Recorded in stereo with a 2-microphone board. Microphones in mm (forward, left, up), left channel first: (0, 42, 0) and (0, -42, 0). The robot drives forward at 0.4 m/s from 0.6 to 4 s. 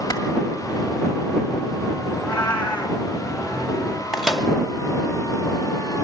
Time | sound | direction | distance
0.1 | a clap | 45° left (ahead or behind) | 2 m
2.1 | a cat meowing | 15° left (ahead or behind) | 2.5 m
4.1 | a microwave | centre (ahead or behind) | 1.4 m